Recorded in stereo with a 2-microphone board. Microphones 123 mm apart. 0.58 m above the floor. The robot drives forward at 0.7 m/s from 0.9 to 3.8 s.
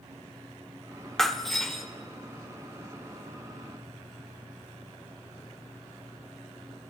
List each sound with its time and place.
1.2 s breaking glass: 5° left (ahead or behind), 0.6 m; by 1.8 s centre (ahead or behind), 1.1 m